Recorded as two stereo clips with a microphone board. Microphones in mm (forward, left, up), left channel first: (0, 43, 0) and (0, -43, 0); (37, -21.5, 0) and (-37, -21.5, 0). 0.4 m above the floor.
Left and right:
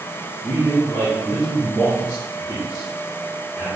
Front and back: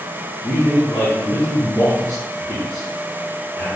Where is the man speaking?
50° left, 3 m.